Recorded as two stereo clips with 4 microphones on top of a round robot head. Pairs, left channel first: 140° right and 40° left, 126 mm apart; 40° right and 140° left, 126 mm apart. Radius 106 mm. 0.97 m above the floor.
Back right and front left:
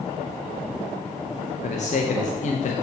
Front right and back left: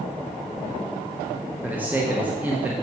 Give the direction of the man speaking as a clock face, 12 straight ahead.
5 o'clock.